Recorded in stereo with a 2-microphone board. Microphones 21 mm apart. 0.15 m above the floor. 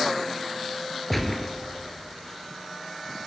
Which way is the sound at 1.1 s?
5° left (ahead or behind).